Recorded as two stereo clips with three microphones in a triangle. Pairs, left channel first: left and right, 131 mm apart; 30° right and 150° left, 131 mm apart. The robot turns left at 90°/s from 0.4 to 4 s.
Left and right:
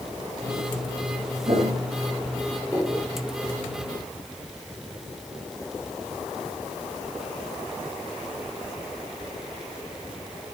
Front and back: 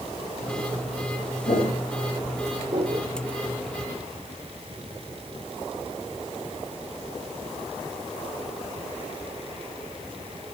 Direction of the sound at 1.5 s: 55° right.